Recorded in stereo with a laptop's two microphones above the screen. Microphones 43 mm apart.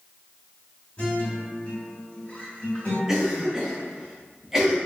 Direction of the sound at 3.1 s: 10° right (ahead or behind).